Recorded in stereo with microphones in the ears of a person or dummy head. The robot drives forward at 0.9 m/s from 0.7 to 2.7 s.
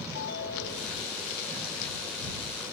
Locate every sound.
0.1 s a ringtone: 55° left (ahead or behind), 1.9 m; by 1.1 s 60° left (ahead or behind), 1.7 m